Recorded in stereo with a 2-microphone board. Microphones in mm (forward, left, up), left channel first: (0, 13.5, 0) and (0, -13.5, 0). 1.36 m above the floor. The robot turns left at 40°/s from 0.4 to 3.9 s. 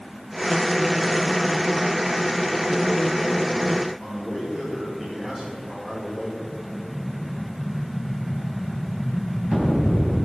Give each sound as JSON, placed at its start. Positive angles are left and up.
{"t": 4.0, "sound": "a man speaking", "side_deg": -20, "distance_m": 5.5}
{"t": 6.4, "sound": "an explosion", "side_deg": -50, "distance_m": 4.5}